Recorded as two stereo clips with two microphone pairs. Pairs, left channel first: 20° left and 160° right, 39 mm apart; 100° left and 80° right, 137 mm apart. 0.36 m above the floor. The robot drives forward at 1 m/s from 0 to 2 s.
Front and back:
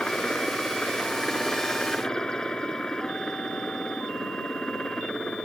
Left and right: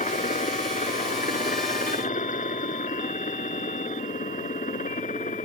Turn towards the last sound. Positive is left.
turn(degrees=90)